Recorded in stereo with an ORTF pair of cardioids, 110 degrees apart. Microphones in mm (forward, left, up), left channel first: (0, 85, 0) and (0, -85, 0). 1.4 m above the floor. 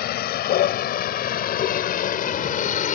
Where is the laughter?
I don't hear laughter.